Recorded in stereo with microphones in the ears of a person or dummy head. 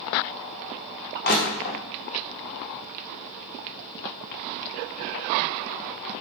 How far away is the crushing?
About 0.5 m.